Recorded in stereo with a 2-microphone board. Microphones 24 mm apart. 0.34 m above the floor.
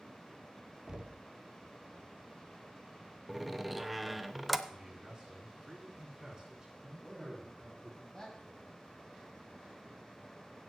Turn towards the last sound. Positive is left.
turn(degrees=25)  # may be behind; listen again after turning